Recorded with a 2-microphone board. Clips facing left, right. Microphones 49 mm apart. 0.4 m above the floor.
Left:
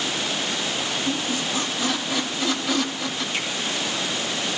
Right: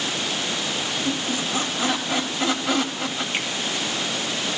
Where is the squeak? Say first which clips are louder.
Even; 40° right (ahead or behind), 1.6 m.